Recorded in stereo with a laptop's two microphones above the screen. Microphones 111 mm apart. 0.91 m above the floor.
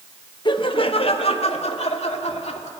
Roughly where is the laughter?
Left.